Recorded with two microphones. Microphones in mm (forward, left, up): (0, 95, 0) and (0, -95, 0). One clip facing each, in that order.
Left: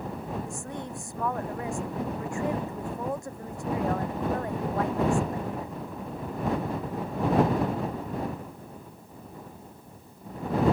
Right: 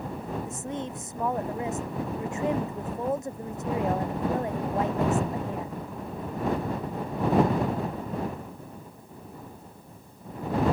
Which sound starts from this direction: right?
A woman speaking, at 0.5 s.